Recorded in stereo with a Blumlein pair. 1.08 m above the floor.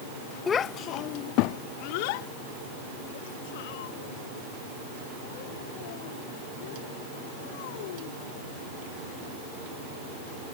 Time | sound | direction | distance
0.5 | a child speaking | 20° left | ?